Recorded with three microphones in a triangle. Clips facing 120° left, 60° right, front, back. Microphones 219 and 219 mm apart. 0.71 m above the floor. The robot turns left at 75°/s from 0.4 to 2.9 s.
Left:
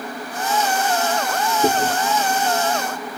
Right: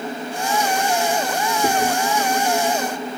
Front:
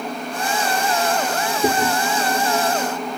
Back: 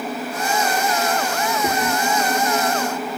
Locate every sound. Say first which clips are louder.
1.6 s chewing: left 1 dB, front 5 dB; 45° left, 0.7 m; by 1.9 s 20° left, 0.7 m